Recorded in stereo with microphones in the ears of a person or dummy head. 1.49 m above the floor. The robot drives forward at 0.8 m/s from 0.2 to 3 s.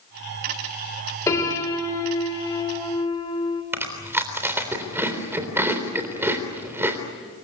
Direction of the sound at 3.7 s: 15° right (ahead or behind).